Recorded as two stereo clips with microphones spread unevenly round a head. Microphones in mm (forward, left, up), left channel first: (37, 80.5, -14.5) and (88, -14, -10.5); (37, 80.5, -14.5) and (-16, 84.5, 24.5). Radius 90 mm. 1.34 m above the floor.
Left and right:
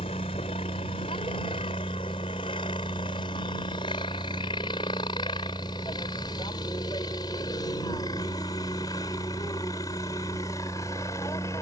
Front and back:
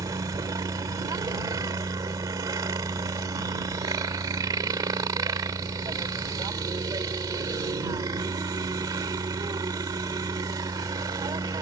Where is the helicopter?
Straight behind; by 11.6 s 170° right.